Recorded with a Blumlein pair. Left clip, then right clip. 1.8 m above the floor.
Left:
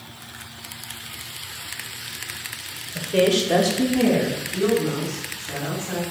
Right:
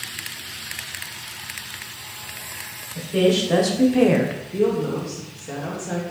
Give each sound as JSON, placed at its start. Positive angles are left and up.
{"t": 3.0, "sound": "a woman speaking", "azimuth_deg": 20, "distance_m": 0.9}
{"t": 4.5, "sound": "a woman speaking", "azimuth_deg": -55, "distance_m": 1.2}